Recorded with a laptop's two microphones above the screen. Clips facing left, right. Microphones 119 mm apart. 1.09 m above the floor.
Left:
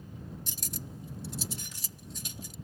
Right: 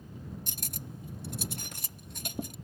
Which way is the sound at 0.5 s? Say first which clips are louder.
Left 1 dB; 60° right (ahead or behind).